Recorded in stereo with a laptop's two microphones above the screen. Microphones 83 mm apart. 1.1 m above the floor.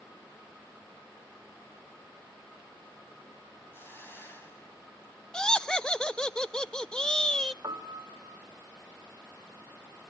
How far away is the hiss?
About 5 m.